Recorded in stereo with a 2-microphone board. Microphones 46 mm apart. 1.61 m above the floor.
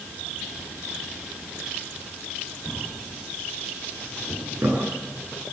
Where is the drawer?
80° right, 9.5 m.